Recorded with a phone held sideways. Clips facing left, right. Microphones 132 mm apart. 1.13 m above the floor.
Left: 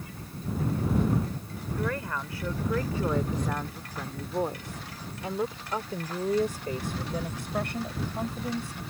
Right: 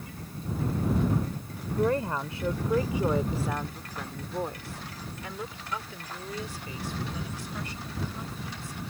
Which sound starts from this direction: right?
A woman speaking, at 1.7 s.